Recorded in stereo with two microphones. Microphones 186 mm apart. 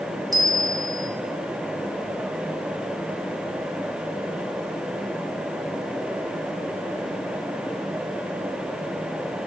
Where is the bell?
20° right (ahead or behind), 1.0 m.